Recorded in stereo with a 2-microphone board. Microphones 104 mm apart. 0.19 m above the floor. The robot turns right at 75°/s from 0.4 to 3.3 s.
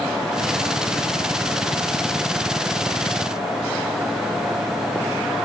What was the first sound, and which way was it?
Only background noise.